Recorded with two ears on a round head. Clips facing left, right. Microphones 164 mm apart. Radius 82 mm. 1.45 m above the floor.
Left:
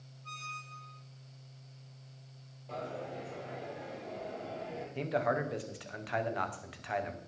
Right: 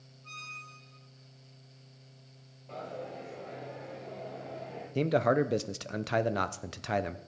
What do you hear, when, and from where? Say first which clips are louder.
0.2 s a squeak: left 3 dB; 10° left (ahead or behind), 3 m
2.7 s a dropped coin: even; 5° left (ahead or behind), 4.5 m
5.0 s a man speaking: right 6 dB; 50° right (ahead or behind), 0.6 m